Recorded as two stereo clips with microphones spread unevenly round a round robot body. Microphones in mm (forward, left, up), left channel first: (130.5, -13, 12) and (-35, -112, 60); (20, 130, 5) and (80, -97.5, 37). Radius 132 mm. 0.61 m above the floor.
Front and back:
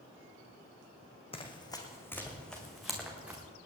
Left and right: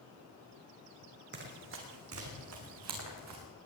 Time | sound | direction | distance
1.3 | running footsteps | 35° right | 2.5 m